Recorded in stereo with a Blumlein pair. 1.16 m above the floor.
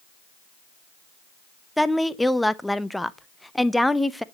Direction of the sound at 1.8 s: 5° left.